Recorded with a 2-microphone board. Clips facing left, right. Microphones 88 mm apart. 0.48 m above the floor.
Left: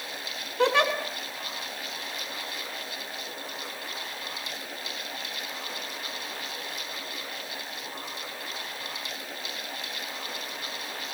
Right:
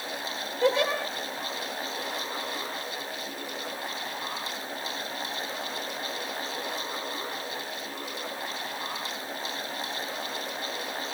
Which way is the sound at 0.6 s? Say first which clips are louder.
Left 1 dB; 70° left (ahead or behind).